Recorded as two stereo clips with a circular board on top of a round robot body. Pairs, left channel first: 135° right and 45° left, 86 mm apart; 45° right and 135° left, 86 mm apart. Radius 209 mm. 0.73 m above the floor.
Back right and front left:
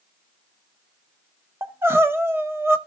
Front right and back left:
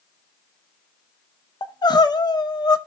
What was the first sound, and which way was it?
Crying, 15° right.